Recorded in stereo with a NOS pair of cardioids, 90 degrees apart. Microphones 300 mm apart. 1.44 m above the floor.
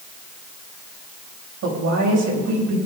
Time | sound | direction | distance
1.6 | a woman speaking | 70° right | 8 m